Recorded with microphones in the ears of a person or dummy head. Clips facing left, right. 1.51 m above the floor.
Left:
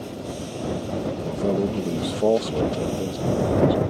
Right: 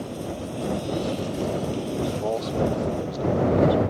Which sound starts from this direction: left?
A man speaking, at 1.2 s.